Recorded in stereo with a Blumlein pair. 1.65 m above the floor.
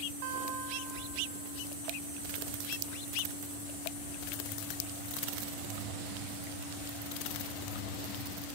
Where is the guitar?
45° right, 1.3 m.